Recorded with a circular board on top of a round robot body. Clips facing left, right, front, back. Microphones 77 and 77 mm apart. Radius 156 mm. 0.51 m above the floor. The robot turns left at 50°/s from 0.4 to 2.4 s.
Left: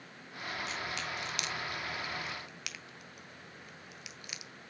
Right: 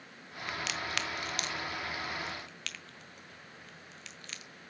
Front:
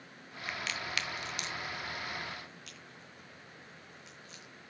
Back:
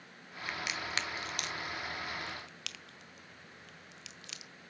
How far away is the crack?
About 1.4 m.